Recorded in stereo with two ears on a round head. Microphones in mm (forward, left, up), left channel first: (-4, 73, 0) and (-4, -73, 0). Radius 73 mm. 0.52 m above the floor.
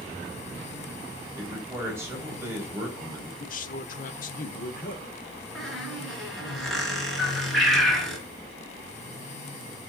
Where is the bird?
Centre (ahead or behind), 3.5 m.